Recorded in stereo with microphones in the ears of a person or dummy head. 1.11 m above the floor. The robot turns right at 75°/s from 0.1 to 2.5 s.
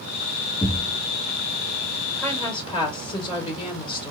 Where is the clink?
I don't hear a clink.